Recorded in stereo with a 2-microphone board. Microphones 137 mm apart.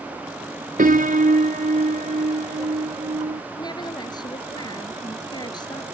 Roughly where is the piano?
Right.